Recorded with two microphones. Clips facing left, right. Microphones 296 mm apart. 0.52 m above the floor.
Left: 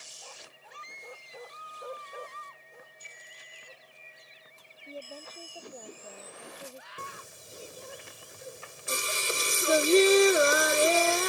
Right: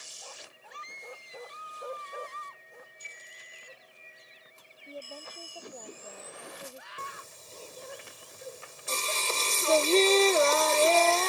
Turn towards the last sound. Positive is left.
turn(degrees=15)  # may be behind; listen again after turning